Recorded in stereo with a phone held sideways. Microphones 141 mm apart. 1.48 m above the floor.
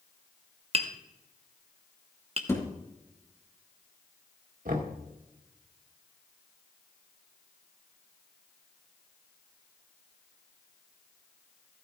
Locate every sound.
0.7 s tapping: 45° right (ahead or behind), 1.0 m
2.5 s a thud: 20° left (ahead or behind), 2.5 m
4.7 s knocking: 75° right (ahead or behind), 1.7 m